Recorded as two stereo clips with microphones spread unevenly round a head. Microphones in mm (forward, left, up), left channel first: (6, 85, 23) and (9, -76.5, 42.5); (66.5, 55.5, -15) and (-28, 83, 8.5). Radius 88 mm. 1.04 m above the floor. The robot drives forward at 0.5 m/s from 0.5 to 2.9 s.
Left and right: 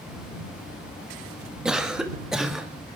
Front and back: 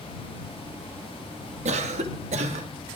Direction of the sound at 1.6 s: 175° right.